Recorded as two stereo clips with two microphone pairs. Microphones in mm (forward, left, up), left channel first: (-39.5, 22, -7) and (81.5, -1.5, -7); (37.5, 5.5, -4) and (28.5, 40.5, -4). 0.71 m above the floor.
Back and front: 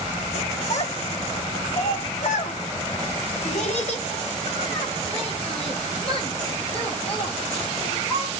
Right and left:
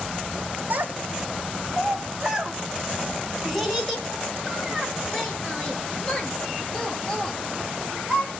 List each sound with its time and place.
0.7 s a child speaking: 150° left, 3 m; by 8.4 s 145° right, 12 m